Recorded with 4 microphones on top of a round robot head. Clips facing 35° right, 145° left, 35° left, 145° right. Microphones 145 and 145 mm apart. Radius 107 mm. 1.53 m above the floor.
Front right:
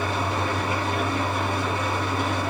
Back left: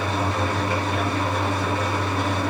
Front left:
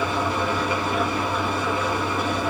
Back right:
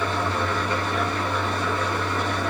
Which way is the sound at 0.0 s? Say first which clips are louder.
Back left 2 dB, front left 2 dB; 120° left.